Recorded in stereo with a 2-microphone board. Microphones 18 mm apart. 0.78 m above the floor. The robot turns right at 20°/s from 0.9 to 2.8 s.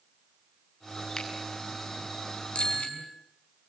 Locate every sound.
1.2 s a finger snap: 35° left (ahead or behind), 6.5 m; by 1.3 s 40° left (ahead or behind), 6.5 m
2.5 s a bicycle bell: 90° left, 5 m; by 3.0 s 85° left, 5 m